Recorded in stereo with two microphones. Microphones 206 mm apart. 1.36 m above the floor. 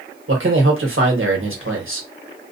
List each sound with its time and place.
0.3 s a man speaking: 75° right (ahead or behind), 1.1 m